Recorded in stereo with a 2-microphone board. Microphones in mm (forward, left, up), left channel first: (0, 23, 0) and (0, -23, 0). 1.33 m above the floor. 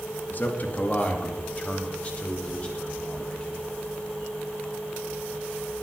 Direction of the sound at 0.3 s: 45° left (ahead or behind).